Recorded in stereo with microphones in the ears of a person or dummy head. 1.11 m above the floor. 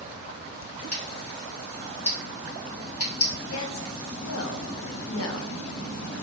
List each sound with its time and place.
0.9 s scissors: 80° left, 1.4 m
3.5 s a woman speaking: 70° left (ahead or behind), 0.5 m